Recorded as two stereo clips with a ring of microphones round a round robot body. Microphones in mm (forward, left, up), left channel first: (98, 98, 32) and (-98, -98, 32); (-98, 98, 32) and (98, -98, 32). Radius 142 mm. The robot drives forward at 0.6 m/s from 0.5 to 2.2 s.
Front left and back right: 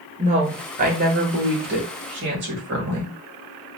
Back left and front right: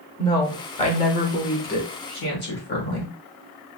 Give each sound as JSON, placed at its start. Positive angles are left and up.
{"t": 0.2, "sound": "a woman speaking", "azimuth_deg": -170, "distance_m": 1.0}